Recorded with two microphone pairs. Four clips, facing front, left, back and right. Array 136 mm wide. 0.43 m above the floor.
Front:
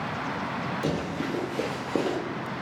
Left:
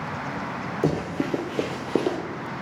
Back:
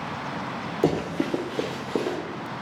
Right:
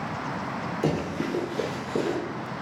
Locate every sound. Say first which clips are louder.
0.8 s running footsteps: left 3 dB, back 8 dB; 165° left, 0.6 m; by 2.2 s 70° left, 0.7 m